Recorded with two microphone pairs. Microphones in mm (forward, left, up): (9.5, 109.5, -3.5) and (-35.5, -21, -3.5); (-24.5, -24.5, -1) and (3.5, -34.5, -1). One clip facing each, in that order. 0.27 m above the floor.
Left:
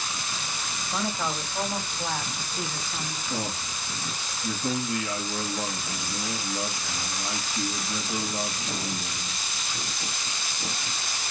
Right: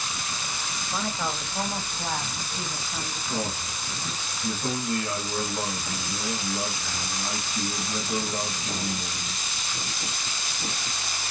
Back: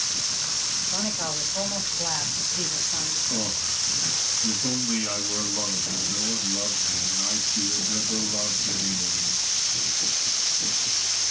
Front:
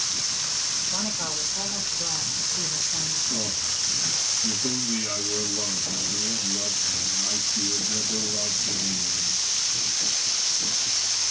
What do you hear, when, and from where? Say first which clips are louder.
0.9 s a man speaking: left 1 dB, back 1 dB; 145° left, 0.9 m; by 3.2 s 165° left, 2.0 m
3.3 s a man speaking: right 2 dB, back 1 dB; 140° right, 2.5 m